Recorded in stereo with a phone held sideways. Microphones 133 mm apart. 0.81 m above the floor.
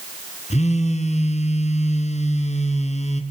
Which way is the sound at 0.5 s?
60° left (ahead or behind).